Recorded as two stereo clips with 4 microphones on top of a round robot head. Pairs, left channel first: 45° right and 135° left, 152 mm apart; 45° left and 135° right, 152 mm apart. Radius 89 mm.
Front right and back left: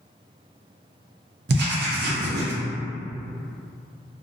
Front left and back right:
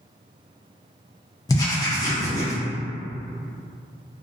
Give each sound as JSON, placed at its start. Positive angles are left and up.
{"t": 1.5, "sound": "writing", "azimuth_deg": 115, "distance_m": 0.5}